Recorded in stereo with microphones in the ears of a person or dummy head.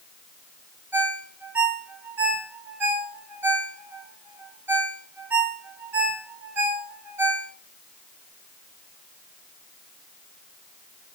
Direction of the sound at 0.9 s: 10° right (ahead or behind).